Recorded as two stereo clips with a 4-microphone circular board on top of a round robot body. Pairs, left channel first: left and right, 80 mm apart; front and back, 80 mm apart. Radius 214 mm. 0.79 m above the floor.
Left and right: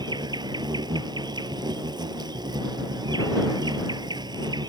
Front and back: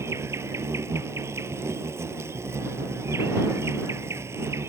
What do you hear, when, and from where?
0.0 s an insect: 120° right